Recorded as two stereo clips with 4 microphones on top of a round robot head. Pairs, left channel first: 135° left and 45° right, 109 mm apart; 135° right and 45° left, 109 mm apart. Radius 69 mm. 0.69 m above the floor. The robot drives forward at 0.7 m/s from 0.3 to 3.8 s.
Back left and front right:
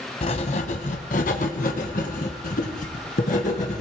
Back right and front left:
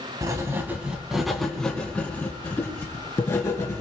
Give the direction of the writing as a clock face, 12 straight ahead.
8 o'clock.